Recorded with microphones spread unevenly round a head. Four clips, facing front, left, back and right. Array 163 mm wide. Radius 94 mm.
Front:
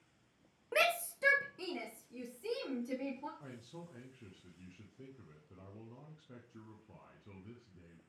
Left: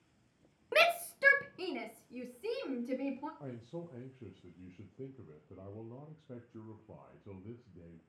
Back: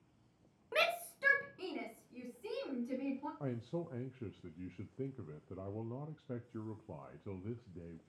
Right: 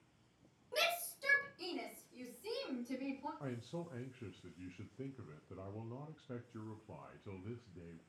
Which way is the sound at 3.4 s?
175° left.